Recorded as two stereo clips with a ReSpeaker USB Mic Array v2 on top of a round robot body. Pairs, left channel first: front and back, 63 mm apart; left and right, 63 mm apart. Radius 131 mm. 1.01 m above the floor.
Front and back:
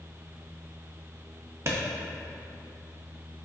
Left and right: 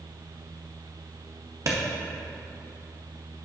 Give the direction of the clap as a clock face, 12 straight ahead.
4 o'clock.